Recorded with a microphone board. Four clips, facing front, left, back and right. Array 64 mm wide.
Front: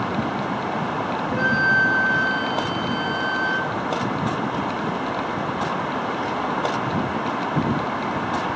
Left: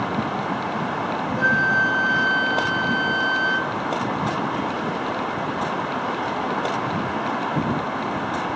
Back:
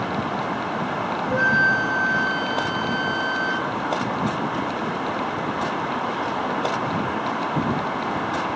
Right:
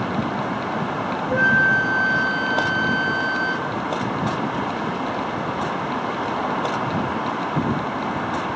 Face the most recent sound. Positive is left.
turn(degrees=-125)